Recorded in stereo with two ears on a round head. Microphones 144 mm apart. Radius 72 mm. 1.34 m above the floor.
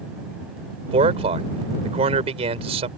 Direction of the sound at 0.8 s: 40° right (ahead or behind).